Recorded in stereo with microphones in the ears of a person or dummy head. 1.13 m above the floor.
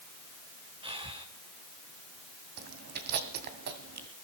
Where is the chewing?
50° right (ahead or behind), 2.0 m.